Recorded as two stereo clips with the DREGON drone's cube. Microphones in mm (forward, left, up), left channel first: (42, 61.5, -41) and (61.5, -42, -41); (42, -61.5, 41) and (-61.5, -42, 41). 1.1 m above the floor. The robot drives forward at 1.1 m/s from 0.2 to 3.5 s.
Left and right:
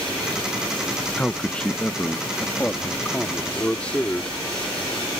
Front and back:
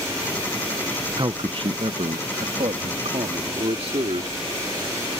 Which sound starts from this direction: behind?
A man speaking, at 1.2 s.